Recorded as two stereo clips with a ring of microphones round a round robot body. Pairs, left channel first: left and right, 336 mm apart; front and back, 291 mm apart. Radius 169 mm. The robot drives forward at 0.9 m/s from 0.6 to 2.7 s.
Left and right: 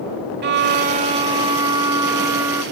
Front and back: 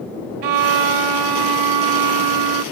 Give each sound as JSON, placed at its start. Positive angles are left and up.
{"t": 0.4, "sound": "a violin", "azimuth_deg": -150}